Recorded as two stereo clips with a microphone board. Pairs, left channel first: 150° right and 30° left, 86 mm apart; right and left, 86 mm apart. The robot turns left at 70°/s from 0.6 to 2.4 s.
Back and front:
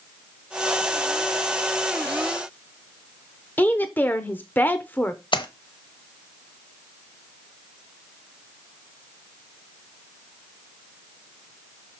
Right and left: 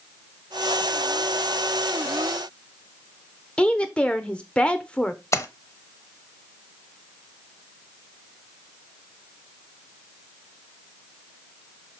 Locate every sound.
3.6 s a woman speaking: 145° right, 0.8 m
5.3 s a splash: 145° right, 0.8 m